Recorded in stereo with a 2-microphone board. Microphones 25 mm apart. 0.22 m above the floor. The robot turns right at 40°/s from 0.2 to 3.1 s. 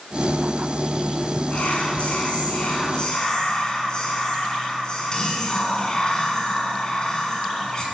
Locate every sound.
1.5 s whispering: 75° left, 2 m; by 7.8 s 140° left, 2 m